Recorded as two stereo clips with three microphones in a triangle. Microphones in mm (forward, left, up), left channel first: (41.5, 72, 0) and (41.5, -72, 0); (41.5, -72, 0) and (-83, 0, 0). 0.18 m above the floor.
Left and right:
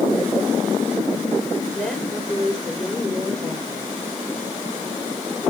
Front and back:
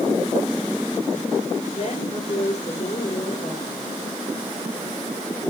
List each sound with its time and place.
1.8 s a woman speaking: 5° left, 4 m